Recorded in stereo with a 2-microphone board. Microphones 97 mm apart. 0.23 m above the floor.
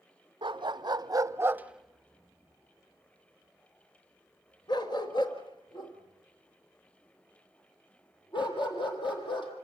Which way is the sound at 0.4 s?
55° right (ahead or behind).